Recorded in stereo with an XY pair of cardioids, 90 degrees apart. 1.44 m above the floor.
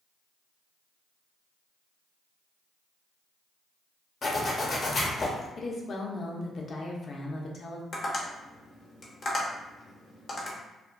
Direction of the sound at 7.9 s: 60° left.